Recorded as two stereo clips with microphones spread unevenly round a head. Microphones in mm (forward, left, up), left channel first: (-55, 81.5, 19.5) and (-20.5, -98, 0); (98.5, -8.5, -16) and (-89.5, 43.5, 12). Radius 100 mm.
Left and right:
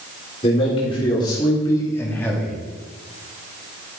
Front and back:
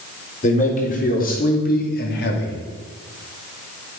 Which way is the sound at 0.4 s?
35° left.